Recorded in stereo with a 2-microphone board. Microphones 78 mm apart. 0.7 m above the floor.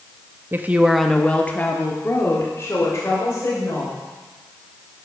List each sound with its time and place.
0.5 s a woman speaking: 30° right (ahead or behind), 0.6 m; by 4.0 s 40° left (ahead or behind), 3 m